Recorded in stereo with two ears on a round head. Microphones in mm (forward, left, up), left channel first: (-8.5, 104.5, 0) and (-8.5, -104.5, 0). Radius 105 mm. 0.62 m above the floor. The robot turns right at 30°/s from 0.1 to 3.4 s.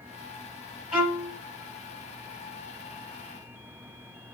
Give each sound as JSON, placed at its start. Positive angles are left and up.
{"t": 0.9, "sound": "a violin", "side_deg": -5, "distance_m": 2.5}